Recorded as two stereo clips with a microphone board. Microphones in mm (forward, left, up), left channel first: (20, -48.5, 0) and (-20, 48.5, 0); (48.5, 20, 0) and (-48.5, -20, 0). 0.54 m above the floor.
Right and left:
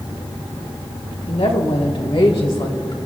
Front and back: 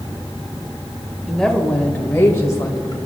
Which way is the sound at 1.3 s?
65° right.